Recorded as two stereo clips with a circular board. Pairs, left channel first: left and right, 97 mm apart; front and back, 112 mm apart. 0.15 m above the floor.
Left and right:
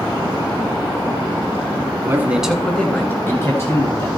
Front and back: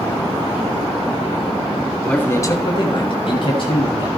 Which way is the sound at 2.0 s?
75° right.